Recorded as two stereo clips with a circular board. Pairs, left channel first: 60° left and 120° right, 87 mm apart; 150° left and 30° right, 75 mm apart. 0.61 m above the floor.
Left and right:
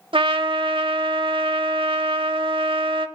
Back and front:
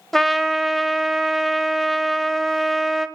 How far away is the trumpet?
About 0.8 m.